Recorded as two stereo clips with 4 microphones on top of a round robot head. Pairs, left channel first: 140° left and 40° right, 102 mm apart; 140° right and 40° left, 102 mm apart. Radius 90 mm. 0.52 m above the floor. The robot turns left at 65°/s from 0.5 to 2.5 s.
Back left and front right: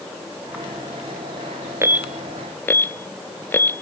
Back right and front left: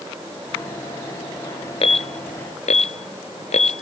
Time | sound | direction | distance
1.8 | an alarm | 105° right | ?